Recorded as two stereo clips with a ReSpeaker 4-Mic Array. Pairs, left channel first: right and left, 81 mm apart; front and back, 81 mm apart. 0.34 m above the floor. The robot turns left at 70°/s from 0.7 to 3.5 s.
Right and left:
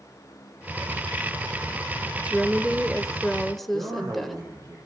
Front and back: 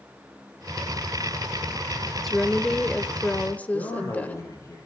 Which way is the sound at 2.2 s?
80° left.